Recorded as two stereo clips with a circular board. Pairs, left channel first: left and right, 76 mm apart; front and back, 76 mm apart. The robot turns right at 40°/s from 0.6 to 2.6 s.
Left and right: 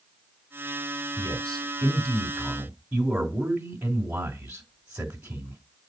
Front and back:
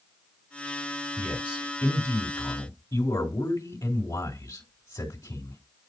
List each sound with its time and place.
1.2 s a man speaking: 80° right, 2.5 m; by 5.6 s 25° right, 2.5 m